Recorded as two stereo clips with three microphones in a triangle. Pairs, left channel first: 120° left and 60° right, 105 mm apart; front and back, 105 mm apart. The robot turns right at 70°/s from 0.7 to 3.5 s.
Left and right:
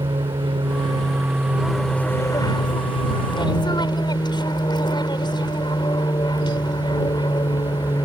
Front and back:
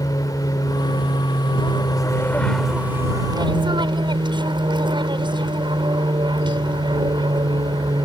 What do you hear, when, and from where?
0.0 s an aircraft: 45° right; by 8.1 s 150° left